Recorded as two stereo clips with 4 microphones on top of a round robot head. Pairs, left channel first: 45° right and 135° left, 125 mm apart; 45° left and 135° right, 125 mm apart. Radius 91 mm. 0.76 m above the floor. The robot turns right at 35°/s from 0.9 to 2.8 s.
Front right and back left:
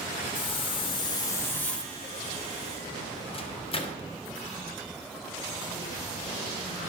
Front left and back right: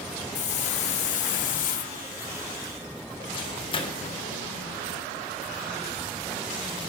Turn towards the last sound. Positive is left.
turn(degrees=-5)